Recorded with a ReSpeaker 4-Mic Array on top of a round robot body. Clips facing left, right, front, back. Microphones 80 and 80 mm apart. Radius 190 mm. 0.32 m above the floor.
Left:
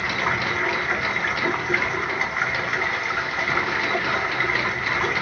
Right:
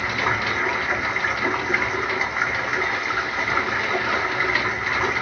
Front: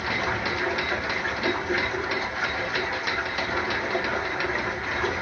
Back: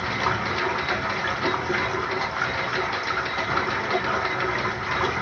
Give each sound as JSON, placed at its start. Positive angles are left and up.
{"t": 0.0, "sound": "running water", "azimuth_deg": -170, "distance_m": 1.1}